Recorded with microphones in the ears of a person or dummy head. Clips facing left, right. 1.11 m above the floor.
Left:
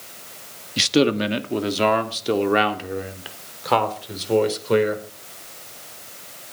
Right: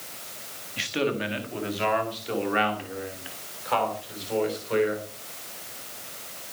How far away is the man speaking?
About 1.7 m.